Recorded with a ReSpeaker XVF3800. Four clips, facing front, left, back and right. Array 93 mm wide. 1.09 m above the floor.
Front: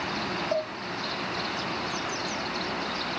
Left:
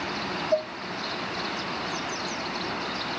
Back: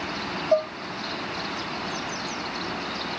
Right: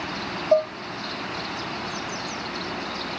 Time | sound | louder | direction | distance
0.5 | dishes clattering | right 7 dB, back 9 dB | 85° right | 0.9 m